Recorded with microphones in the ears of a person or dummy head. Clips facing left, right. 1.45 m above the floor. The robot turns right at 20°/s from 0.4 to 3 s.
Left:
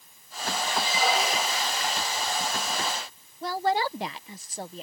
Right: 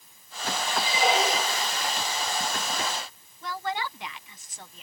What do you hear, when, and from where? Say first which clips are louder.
0.8 s a squeak: right 3 dB; 20° right (ahead or behind); by 1.7 s 35° right (ahead or behind)
3.4 s a woman speaking: left 6 dB; 35° left (ahead or behind)